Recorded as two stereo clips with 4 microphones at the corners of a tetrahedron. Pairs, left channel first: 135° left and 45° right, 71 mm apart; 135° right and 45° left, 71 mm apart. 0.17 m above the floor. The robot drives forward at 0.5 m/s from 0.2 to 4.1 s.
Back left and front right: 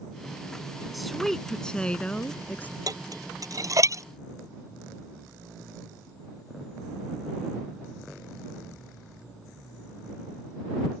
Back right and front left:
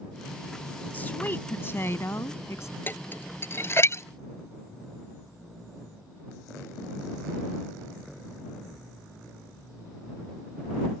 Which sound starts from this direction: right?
Dishes clattering, at 2.9 s.